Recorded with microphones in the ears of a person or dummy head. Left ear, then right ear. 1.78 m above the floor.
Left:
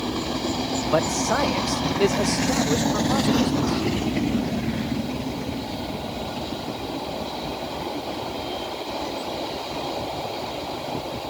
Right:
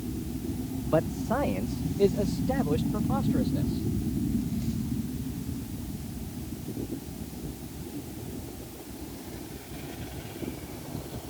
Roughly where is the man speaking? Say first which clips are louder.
Left 5 dB; left.